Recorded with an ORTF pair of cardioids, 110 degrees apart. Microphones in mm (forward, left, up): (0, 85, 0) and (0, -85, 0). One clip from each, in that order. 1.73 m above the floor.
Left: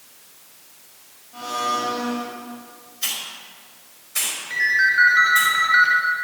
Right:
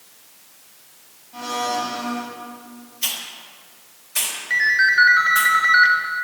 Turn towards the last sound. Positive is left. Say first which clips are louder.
# right 2 dB
turn(degrees=-15)